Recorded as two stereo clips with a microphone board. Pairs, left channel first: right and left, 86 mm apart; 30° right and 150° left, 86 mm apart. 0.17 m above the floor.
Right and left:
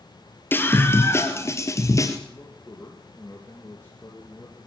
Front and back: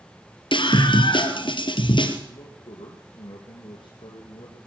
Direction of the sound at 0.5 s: 25° right.